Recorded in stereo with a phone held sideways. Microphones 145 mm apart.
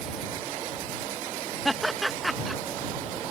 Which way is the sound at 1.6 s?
Centre (ahead or behind).